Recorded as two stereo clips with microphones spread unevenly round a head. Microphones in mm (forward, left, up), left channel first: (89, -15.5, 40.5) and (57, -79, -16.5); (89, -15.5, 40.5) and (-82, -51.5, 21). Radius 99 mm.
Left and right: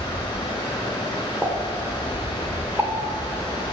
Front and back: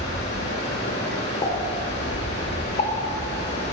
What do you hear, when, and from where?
0.0 s running water: 50° left, 4 m
1.4 s a pop: 35° right, 2.5 m